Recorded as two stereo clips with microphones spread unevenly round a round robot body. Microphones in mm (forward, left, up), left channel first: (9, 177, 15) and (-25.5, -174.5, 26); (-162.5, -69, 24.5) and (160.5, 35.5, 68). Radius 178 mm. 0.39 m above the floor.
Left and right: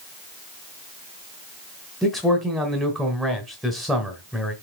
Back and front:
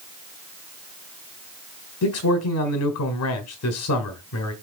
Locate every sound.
2.0 s a man speaking: 175° left, 1.3 m